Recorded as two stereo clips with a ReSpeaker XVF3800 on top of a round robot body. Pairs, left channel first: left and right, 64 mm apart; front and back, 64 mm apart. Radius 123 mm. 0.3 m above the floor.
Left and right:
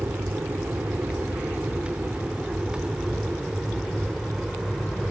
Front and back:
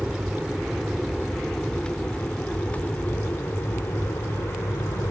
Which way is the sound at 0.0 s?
105° right.